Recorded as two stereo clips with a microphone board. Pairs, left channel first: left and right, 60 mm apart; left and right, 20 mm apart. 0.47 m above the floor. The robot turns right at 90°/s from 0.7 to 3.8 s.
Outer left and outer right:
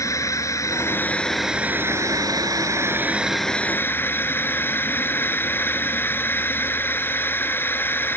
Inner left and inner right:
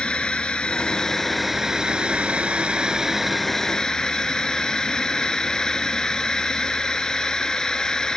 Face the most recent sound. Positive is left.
turn(degrees=35)